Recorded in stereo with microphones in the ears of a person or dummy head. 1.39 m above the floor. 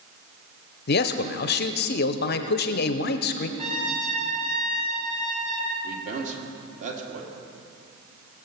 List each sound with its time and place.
0.9 s a man speaking: 50° left (ahead or behind), 0.8 m
3.6 s a trumpet: 30° right (ahead or behind), 2.5 m
5.8 s a man speaking: 35° right (ahead or behind), 2.5 m